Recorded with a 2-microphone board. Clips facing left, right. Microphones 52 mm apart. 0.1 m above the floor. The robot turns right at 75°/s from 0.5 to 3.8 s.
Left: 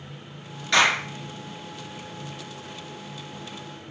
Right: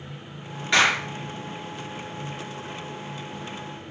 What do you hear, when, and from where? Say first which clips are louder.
0.7 s a clap: even; 10° right (ahead or behind), 1.2 m; by 1.1 s 25° right (ahead or behind), 1.2 m